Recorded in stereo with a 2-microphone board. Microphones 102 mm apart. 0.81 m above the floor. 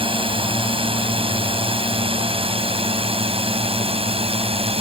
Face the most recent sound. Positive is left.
turn(degrees=-65)  # may be behind; listen again after turning